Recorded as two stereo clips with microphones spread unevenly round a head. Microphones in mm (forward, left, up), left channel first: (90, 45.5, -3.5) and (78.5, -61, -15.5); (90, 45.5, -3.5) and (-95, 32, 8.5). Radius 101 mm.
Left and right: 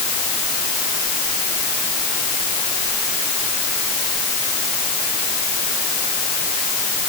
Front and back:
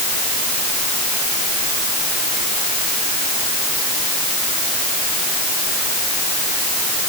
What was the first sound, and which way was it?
Only background noise.